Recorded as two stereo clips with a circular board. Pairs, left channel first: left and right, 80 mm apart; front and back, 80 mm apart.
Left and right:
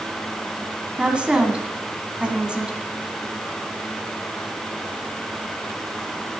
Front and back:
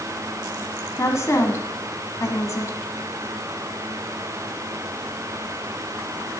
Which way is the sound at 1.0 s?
20° right.